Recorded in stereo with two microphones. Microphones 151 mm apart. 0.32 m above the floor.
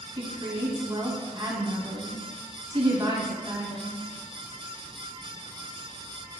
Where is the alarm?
I don't hear an alarm.